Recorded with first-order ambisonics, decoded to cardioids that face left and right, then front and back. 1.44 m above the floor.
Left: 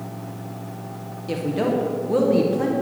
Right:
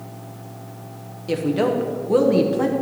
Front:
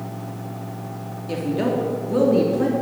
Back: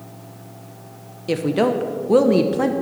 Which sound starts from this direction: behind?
A woman speaking, at 1.3 s.